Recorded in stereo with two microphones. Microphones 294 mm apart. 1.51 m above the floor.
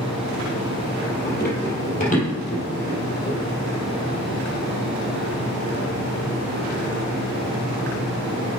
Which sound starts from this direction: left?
Running footsteps, at 1.2 s.